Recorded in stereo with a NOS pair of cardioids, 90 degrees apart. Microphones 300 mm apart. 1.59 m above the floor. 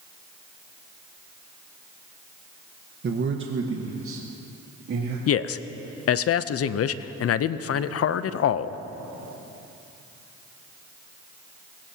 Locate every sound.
3.0 s a man speaking: 35° right, 1.1 m; by 5.2 s 50° right, 3 m
5.3 s a man speaking: 50° left, 0.6 m